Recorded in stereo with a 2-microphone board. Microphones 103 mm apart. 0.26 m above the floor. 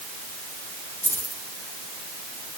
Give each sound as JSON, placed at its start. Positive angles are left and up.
{"t": 1.0, "sound": "keys jangling", "side_deg": 85, "distance_m": 7.5}